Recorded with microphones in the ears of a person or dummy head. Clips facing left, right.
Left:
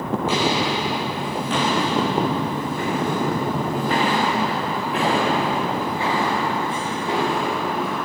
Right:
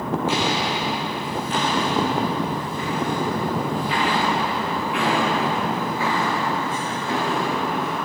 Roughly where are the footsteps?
Left.